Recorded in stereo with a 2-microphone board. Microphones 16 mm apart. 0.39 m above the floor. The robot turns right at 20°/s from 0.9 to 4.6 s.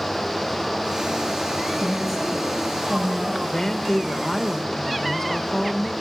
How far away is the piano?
No piano in this recording.